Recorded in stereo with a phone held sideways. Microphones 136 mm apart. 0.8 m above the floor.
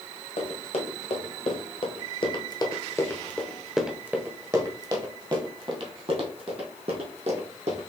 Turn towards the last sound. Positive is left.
turn(degrees=-60)  # may be behind; listen again after turning